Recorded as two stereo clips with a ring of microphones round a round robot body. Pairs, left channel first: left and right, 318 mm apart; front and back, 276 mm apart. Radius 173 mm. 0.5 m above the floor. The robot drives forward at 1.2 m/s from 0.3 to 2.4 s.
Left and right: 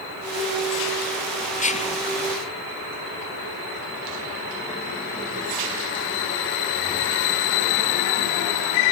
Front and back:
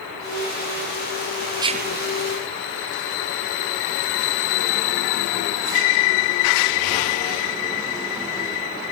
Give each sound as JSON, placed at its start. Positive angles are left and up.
{"t": 1.6, "sound": "whispering", "azimuth_deg": 110, "distance_m": 0.7}